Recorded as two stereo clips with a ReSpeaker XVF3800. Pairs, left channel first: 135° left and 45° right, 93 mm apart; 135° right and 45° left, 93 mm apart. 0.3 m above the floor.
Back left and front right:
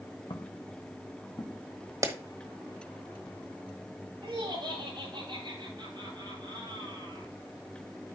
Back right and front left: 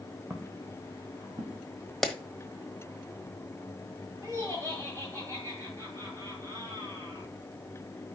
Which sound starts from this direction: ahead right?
A clap, at 2.0 s.